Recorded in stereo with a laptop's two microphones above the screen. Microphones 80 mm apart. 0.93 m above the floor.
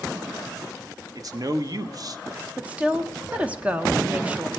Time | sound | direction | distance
1.1 | a man speaking | 50° right (ahead or behind) | 0.9 m
2.6 | a woman speaking | 20° right (ahead or behind) | 0.7 m